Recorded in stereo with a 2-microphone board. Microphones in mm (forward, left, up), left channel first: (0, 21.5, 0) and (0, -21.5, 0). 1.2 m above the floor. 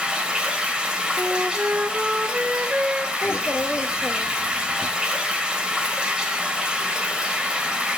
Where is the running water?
20° right (ahead or behind), 2.5 m.